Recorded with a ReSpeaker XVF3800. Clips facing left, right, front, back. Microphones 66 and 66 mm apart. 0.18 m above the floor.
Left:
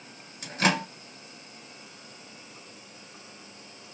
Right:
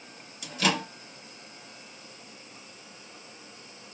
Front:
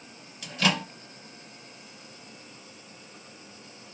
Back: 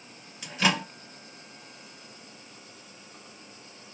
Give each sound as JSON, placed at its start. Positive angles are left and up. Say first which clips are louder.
{"t": 0.4, "sound": "a microwave", "louder": "left 2 dB, even", "azimuth_deg": 110, "distance_m": 1.4}